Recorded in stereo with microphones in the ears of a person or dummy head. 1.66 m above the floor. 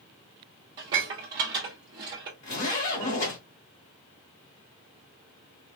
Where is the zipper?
35° left (ahead or behind), 1.8 m.